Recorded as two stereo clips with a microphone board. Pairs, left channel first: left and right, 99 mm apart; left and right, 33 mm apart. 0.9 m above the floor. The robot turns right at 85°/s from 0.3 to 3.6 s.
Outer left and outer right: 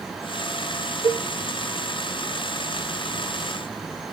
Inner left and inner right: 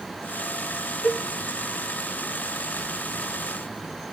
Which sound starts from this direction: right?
A cowbell, at 1.0 s.